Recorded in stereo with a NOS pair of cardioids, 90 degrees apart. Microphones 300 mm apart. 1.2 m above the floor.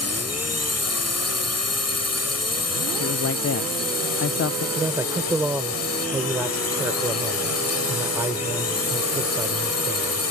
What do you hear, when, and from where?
0.0 s a drone: 60° left
3.0 s a man speaking: 55° left
4.8 s a man speaking: 10° right